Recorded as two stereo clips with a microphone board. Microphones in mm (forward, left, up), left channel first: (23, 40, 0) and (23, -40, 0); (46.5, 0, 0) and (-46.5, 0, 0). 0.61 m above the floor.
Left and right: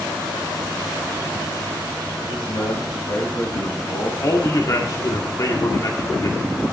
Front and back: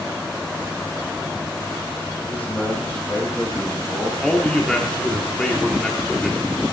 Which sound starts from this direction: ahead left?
A man speaking, at 2.3 s.